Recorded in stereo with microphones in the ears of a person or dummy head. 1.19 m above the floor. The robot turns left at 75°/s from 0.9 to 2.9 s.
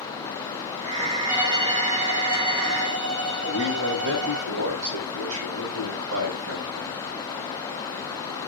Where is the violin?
10° right, 7.5 m; by 4.5 s 130° right, 7.5 m.